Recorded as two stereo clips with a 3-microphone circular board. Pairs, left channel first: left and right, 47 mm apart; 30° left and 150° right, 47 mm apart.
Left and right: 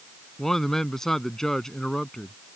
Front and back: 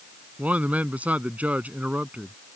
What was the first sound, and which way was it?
A man speaking, 165° left.